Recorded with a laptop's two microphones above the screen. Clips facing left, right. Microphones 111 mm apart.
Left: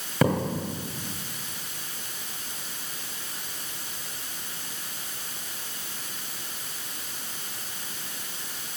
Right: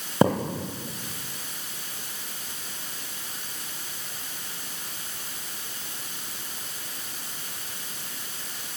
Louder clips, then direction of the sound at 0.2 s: Right 2 dB; 25° right (ahead or behind).